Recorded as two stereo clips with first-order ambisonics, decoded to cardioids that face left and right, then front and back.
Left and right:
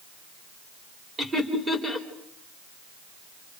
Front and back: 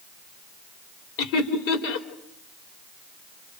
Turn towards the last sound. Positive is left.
turn(degrees=-5)